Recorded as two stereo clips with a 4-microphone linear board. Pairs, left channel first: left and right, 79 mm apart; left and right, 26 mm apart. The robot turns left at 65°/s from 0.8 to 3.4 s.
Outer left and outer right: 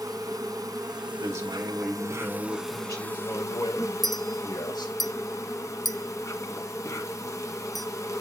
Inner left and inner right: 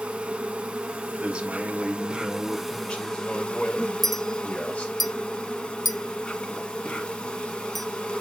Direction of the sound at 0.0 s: 55° right.